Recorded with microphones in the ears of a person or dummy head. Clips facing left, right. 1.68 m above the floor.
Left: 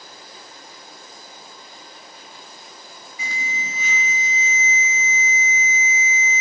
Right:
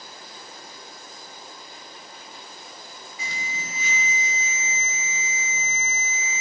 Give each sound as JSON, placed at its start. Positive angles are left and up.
{"t": 3.2, "sound": "an alarm", "side_deg": 75, "distance_m": 2.5}